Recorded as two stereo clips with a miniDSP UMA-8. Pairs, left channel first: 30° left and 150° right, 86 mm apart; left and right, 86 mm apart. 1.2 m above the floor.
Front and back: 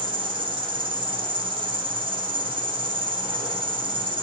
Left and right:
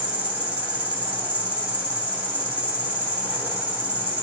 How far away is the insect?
About 3.5 m.